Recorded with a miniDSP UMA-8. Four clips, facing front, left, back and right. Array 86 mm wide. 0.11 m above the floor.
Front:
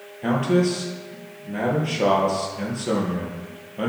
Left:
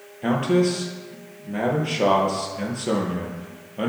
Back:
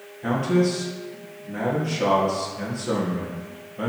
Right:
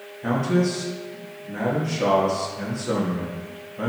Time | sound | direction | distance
0.2 | a man speaking | 60° left | 2.5 m